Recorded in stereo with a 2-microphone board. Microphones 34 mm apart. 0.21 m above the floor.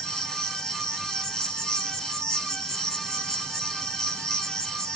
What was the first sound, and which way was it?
An insect, 20° left (ahead or behind).